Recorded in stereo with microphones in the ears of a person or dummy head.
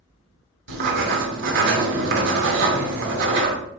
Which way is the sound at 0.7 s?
70° right (ahead or behind).